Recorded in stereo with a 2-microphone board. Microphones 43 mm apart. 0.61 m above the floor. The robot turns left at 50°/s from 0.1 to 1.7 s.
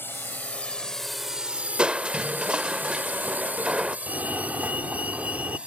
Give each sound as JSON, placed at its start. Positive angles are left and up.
{"t": 0.0, "sound": "a drone", "side_deg": 60}
{"t": 1.8, "sound": "crushing", "side_deg": -25}
{"t": 4.1, "sound": "a fire alarm", "side_deg": -40}